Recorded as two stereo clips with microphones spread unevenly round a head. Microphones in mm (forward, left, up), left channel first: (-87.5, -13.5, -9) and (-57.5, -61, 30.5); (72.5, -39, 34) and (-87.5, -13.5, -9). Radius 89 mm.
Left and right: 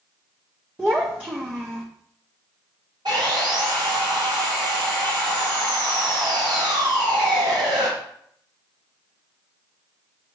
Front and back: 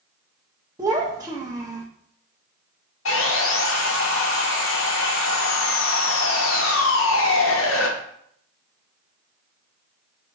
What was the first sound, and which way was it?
A child speaking, 115° right.